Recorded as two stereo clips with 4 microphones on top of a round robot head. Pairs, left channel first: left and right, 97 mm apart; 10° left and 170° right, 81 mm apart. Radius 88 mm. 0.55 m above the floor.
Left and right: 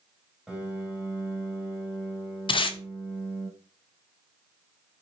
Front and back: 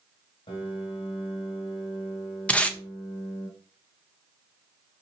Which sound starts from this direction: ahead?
A piano, at 0.5 s.